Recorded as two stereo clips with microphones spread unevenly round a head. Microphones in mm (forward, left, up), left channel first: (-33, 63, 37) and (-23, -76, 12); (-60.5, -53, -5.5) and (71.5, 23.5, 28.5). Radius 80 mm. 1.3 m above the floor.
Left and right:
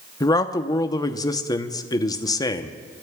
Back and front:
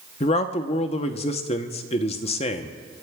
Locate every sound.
0.2 s a man speaking: 160° left, 0.9 m